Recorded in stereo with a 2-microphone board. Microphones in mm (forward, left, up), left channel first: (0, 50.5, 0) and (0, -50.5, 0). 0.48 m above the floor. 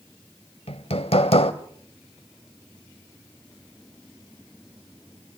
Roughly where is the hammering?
Left.